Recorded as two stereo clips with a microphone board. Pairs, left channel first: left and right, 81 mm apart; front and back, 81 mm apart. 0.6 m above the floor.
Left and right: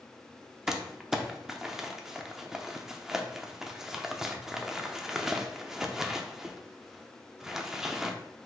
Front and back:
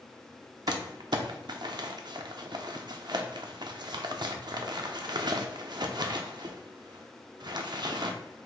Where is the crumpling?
175° right, 0.6 m.